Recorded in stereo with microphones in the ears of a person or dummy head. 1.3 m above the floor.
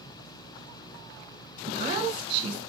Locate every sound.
1.7 s a woman speaking: 30° right (ahead or behind), 1.1 m